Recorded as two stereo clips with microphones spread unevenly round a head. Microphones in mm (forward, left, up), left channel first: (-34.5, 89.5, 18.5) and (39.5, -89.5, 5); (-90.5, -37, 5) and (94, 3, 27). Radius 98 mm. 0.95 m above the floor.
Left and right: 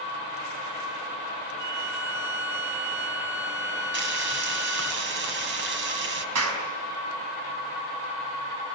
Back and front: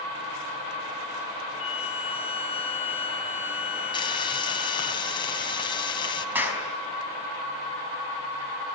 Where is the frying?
100° right, 2.5 m.